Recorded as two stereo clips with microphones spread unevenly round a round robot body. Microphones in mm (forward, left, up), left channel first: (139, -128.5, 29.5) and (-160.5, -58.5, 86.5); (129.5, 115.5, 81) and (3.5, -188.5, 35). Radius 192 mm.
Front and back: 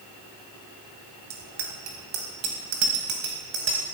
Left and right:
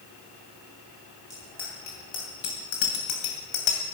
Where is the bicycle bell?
150° left, 3 m; by 3.8 s 100° left, 2.5 m.